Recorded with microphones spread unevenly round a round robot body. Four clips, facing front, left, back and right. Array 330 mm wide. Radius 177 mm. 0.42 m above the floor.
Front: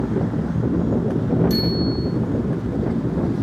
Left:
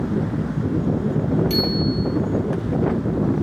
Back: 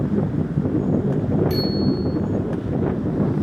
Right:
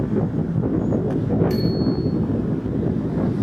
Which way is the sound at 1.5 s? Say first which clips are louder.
Right 1 dB, even; 20° left.